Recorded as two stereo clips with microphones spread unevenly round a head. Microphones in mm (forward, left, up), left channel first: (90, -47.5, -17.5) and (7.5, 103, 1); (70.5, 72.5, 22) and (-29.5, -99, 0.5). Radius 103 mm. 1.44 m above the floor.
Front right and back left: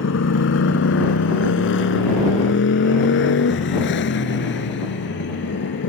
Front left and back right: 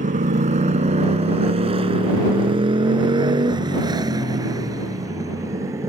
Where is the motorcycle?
65° right; by 5.9 s 45° right.